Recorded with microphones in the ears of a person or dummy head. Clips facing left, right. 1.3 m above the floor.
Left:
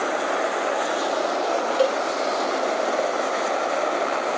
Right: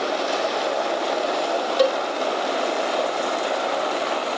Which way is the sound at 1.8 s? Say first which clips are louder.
Right 2 dB; 20° right (ahead or behind).